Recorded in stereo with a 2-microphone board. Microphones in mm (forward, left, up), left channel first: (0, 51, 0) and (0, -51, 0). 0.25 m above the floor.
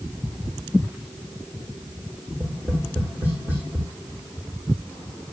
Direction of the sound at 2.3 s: 15° right (ahead or behind).